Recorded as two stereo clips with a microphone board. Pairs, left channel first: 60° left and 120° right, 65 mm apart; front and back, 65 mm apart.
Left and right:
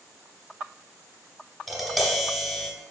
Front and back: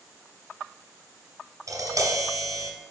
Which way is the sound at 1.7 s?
150° left.